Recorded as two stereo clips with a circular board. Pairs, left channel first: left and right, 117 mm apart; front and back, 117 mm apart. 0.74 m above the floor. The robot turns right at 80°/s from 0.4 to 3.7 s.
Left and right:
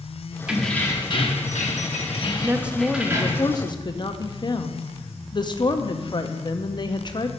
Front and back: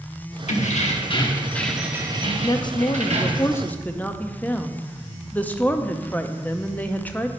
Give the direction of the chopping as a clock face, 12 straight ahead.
No chopping in this recording.